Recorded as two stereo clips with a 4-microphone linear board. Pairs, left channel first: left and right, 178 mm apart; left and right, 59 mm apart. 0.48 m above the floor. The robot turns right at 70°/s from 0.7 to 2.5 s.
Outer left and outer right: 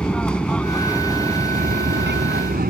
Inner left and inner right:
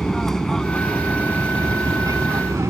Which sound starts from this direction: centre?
An aircraft, at 0.0 s.